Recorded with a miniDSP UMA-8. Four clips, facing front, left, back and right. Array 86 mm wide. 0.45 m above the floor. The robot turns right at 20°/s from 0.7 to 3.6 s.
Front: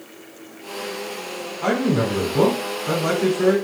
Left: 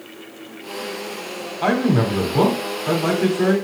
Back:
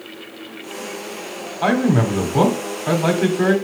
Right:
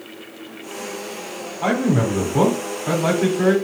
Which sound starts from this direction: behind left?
A man speaking, at 1.6 s.